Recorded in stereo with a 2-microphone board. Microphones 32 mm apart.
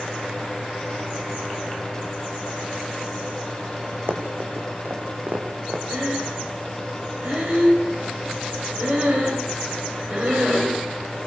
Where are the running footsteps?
70° right (ahead or behind), 4.5 m; by 5.8 s 65° right (ahead or behind), 5 m.